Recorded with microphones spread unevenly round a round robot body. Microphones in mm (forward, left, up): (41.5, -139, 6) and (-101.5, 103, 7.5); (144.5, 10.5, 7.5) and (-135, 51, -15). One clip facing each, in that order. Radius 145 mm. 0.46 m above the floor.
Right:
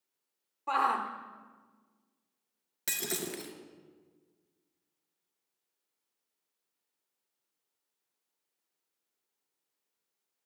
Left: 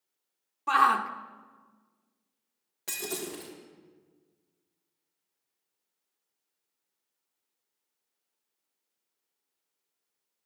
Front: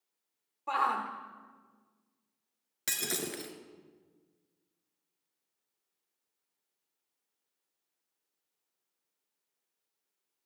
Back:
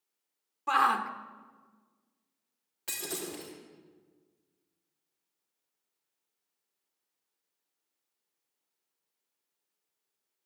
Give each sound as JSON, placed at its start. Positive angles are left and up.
{"t": 0.7, "sound": "a shout", "azimuth_deg": 155, "distance_m": 0.8}
{"t": 2.9, "sound": "breaking glass", "azimuth_deg": -10, "distance_m": 1.8}